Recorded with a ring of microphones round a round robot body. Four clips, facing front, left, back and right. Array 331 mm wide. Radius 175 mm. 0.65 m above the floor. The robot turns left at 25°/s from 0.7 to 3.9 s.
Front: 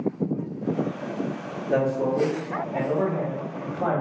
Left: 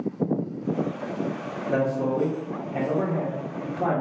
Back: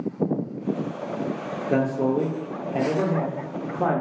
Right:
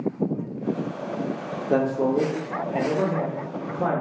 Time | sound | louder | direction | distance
1.7 | a man speaking | right 3 dB, even | 115° right | 0.7 m